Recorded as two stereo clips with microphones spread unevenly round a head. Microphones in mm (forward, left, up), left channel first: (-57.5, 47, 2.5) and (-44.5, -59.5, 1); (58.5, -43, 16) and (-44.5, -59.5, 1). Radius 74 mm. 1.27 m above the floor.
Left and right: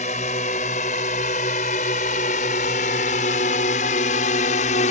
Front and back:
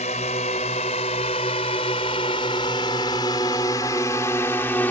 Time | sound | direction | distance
0.0 | a drone | 55° left | ?